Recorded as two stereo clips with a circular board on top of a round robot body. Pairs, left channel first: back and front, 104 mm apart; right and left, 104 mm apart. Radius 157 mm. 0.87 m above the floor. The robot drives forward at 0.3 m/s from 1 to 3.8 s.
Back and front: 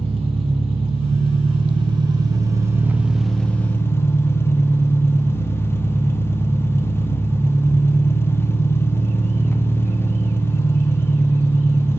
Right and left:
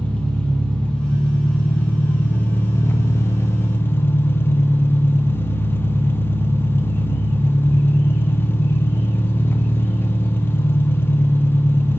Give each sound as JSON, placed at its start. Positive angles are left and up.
{"t": 0.0, "sound": "an engine running", "azimuth_deg": -10, "distance_m": 0.8}